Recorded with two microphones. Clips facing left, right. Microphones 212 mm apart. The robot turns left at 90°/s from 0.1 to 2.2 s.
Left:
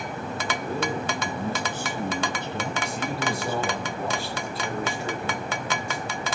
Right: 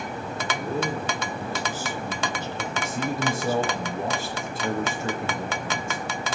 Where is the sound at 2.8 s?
45° right (ahead or behind), 4 m.